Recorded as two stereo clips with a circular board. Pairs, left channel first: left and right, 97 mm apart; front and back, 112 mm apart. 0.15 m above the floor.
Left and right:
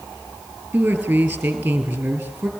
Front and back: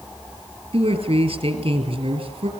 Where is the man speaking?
160° right, 3 m.